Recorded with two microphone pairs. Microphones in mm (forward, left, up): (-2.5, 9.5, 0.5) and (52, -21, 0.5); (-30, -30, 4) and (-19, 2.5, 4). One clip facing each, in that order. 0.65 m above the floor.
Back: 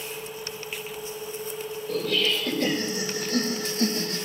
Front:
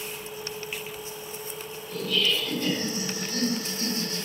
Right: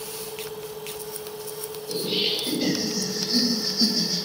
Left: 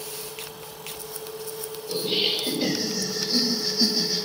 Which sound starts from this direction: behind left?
Laughter, at 1.9 s.